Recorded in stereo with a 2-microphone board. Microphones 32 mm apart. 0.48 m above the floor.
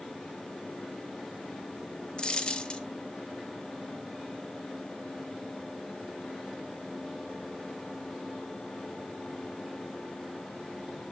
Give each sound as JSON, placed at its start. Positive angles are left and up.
{"t": 2.2, "sound": "a dropped coin", "side_deg": 30, "distance_m": 0.7}